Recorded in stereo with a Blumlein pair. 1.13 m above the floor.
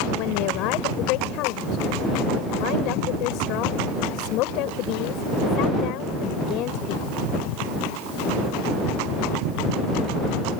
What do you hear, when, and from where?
0.2 s a woman speaking: 40° left